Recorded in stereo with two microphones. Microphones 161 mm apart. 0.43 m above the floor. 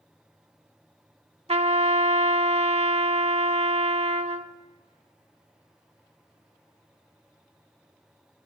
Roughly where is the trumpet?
Right.